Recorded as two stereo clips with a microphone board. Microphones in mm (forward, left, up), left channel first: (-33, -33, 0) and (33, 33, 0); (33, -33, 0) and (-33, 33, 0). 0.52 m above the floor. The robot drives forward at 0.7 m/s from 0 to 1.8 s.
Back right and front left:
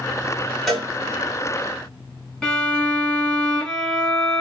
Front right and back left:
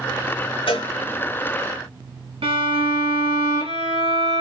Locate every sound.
0.7 s a cowbell: 45° right, 2.5 m; by 0.9 s 50° right, 2.5 m
2.4 s a violin: 145° left, 1.9 m